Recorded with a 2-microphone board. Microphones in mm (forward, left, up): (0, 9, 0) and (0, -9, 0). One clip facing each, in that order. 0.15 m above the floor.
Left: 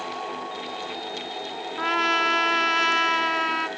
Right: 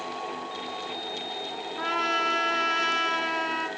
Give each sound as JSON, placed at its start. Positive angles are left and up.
{"t": 1.8, "sound": "a trumpet", "side_deg": 20, "distance_m": 0.9}